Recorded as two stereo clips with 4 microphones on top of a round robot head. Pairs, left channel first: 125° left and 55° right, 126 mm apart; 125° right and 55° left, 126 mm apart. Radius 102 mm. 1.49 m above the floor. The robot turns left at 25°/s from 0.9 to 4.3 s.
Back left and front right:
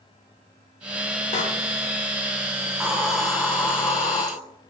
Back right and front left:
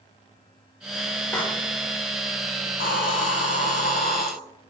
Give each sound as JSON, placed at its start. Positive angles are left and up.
{"t": 1.3, "sound": "a door slam", "azimuth_deg": 160, "distance_m": 1.5}
{"t": 2.7, "sound": "a hiss", "azimuth_deg": -135, "distance_m": 1.2}